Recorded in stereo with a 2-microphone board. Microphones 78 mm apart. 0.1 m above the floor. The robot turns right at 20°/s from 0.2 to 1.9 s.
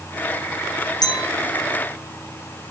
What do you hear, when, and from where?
1.0 s a clink: 60° left (ahead or behind), 2.5 m; by 1.3 s 55° left (ahead or behind), 2.5 m